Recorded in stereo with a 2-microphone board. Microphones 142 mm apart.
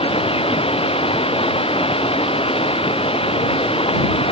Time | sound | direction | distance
0.0 | running water | 40° left (ahead or behind) | ?